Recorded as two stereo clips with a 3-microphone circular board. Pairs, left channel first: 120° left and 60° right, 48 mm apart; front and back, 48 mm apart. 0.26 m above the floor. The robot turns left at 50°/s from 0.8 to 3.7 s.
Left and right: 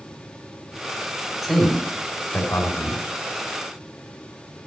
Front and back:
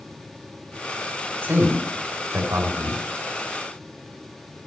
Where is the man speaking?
145° right, 3 m; by 3.1 s 130° left, 3 m.